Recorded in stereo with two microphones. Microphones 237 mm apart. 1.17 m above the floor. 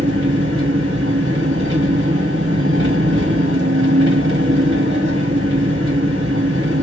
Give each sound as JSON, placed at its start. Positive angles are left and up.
{"t": 0.0, "sound": "an engine running", "side_deg": -60, "distance_m": 1.5}